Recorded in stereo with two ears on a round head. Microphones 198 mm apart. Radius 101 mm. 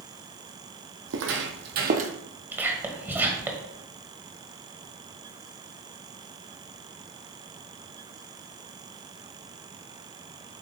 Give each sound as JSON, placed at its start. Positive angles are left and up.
{"t": 1.1, "sound": "footsteps", "side_deg": -65, "distance_m": 1.3}
{"t": 2.5, "sound": "whispering", "side_deg": -10, "distance_m": 1.6}